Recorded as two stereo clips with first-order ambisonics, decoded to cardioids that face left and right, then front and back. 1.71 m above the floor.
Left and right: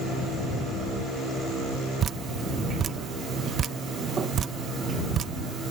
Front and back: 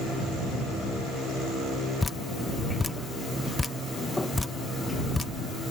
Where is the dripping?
70° right.